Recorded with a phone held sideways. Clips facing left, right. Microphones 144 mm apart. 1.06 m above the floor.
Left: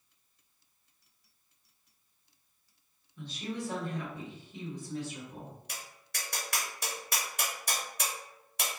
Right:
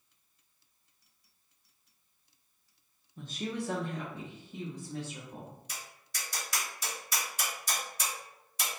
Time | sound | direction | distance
3.2 | a woman speaking | 40° right (ahead or behind) | 0.5 m
5.7 | tapping | 60° left (ahead or behind) | 0.7 m